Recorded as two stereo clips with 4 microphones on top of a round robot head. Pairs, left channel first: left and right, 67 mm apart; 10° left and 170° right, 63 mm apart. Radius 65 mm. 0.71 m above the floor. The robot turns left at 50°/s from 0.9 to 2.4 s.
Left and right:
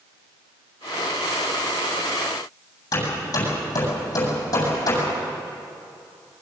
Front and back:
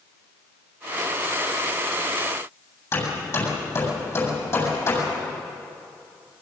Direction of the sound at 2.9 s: 55° left.